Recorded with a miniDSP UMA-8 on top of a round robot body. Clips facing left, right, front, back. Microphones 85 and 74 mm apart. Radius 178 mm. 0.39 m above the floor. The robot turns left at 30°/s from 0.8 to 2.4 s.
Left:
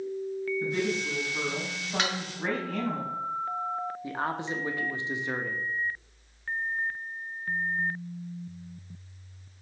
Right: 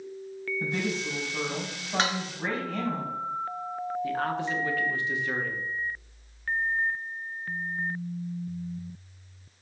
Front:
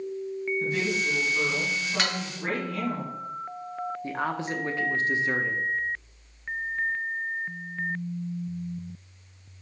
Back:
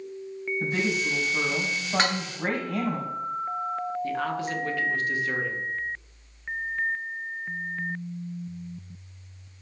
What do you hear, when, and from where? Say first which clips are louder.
0.6 s a woman speaking: right 1 dB, back 3 dB; 135° right, 3.5 m; by 3.0 s straight behind, 3.5 m
2.0 s dishes clattering: right 3 dB, back 6 dB; 135° right, 0.8 m; by 2.2 s 140° right, 0.8 m
4.0 s a man speaking: right 4 dB, back 1 dB; 40° left, 1.1 m